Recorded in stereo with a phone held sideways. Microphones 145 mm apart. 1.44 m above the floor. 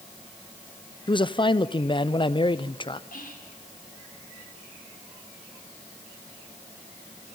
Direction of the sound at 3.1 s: 75° left (ahead or behind).